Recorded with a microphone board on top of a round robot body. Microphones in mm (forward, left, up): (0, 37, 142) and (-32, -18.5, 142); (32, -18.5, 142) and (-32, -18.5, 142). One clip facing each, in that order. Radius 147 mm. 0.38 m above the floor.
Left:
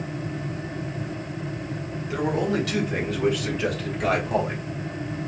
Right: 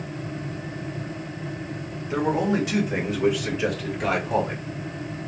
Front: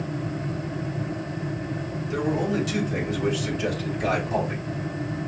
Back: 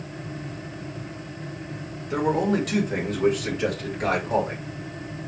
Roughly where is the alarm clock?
No alarm clock in this recording.